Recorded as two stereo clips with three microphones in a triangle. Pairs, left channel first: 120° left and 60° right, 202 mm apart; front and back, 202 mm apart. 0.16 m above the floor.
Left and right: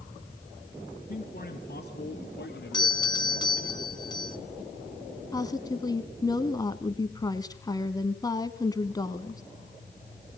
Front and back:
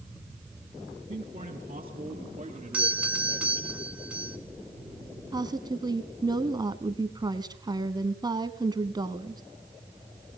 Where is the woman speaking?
155° left, 1.1 m.